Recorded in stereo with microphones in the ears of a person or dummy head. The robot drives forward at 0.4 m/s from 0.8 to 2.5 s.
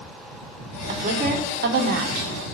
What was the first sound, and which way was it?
A woman speaking, 40° right (ahead or behind).